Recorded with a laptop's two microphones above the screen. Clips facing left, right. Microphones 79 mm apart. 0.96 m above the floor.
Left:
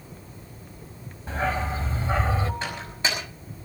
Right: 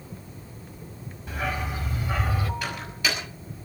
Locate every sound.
1.3 s a dog barking: 35° left (ahead or behind), 3 m; by 2.5 s 30° left (ahead or behind), 2 m
2.6 s a microwave: 30° left (ahead or behind), 5.5 m